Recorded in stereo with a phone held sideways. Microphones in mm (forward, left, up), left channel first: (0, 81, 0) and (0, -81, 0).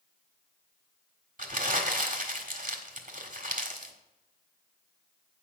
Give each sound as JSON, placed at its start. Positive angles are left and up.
{"t": 1.4, "sound": "crumpling", "side_deg": -50, "distance_m": 1.6}